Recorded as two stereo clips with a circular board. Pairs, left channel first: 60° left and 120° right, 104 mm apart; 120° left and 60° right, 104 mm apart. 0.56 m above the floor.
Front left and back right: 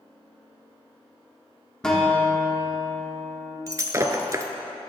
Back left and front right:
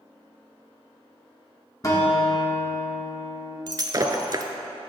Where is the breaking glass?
80° right, 0.6 m.